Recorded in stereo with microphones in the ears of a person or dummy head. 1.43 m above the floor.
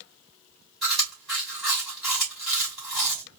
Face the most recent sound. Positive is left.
turn(degrees=0)  # may be behind; listen again after turning